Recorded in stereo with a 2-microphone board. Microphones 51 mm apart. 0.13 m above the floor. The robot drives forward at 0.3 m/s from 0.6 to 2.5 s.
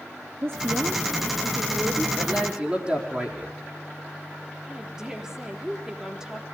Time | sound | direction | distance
0.4 | a woman speaking | 55° right (ahead or behind) | 2.0 m
2.2 | a man speaking | 20° right (ahead or behind) | 4.5 m
4.7 | a woman speaking | 10° right (ahead or behind) | 3.5 m